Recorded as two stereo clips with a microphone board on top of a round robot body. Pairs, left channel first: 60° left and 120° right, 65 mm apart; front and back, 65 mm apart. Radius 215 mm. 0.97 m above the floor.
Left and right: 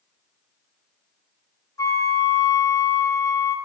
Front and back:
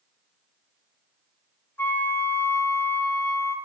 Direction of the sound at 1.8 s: 50° left.